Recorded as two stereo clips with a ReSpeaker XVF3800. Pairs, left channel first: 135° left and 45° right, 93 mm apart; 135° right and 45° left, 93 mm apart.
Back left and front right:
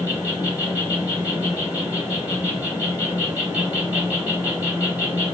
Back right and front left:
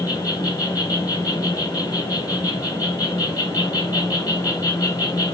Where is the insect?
110° right, 2 m.